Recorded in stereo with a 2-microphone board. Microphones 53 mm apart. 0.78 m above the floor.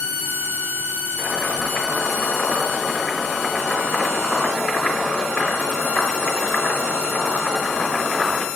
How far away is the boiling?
About 3 m.